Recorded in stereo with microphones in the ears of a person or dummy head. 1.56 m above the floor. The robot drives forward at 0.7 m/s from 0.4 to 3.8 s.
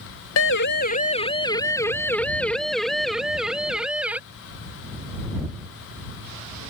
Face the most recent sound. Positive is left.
turn(degrees=-5)  # may be behind; listen again after turning